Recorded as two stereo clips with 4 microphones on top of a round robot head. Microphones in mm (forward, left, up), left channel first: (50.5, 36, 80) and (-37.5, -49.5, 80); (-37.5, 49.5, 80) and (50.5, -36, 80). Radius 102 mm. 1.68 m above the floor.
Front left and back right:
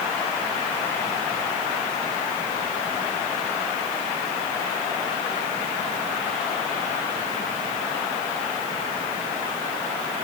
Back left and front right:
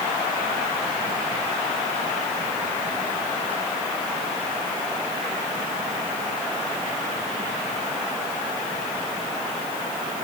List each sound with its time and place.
Only background noise.